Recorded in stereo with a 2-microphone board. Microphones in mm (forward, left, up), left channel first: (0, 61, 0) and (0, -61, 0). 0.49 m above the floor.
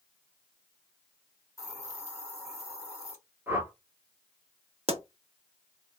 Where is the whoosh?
20° right (ahead or behind), 1.2 m.